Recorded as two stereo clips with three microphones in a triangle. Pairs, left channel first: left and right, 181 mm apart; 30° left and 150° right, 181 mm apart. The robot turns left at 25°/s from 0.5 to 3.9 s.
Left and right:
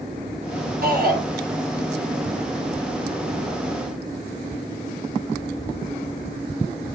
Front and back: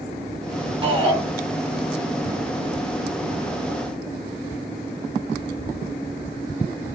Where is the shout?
95° right, 2.5 m; by 1.2 s 105° right, 2.5 m.